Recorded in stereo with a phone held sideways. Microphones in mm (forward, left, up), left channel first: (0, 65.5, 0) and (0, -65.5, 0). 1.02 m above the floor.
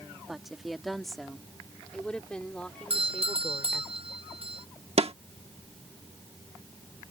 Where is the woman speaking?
5° right (ahead or behind); by 3.9 s 10° left (ahead or behind).